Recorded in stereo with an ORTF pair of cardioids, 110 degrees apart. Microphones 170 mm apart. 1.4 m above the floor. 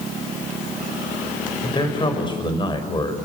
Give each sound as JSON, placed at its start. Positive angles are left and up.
{"t": 1.6, "sound": "a man speaking", "azimuth_deg": 30, "distance_m": 6.0}